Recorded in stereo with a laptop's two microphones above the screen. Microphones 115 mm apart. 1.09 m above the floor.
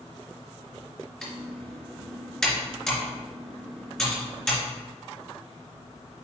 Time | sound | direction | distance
1.2 | typing on a keyboard | 5° left (ahead or behind) | 3 m